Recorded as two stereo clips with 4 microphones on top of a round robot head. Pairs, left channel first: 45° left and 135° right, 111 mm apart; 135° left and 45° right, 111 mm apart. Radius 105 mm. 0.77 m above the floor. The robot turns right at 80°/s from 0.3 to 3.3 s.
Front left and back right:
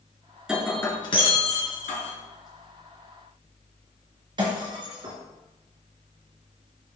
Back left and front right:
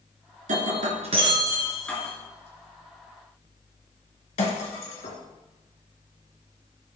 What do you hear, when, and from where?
0.5 s breaking glass: 55° right, 2.5 m; by 5.2 s 170° left, 2.5 m